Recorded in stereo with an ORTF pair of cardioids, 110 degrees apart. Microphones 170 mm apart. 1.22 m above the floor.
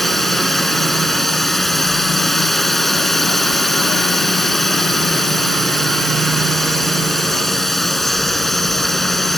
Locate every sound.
0.0 s a drone: straight ahead